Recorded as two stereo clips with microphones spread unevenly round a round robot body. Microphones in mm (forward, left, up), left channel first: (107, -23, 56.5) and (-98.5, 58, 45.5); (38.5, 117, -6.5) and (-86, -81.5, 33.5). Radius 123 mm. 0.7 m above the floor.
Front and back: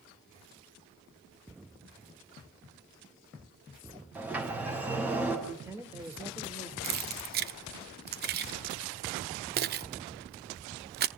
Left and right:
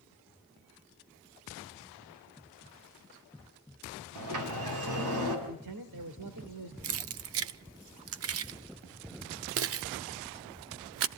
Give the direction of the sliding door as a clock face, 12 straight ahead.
4 o'clock.